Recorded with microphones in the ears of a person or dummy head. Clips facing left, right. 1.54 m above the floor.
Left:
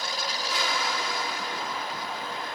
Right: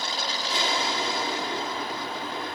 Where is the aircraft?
25° right (ahead or behind).